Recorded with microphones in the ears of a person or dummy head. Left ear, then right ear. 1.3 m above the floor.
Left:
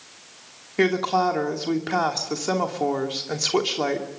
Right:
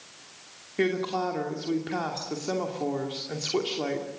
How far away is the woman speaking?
About 2.5 m.